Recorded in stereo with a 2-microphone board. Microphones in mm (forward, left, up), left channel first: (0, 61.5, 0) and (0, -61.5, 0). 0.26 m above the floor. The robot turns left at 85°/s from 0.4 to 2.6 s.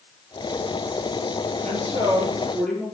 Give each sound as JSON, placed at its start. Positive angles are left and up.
{"t": 1.6, "sound": "a woman speaking", "azimuth_deg": -100, "distance_m": 6.0}